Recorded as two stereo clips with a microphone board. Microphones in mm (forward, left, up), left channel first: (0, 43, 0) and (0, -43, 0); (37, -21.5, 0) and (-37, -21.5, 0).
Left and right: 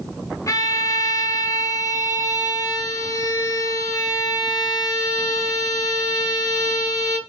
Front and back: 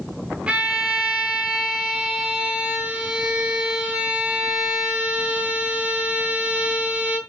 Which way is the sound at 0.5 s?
110° left.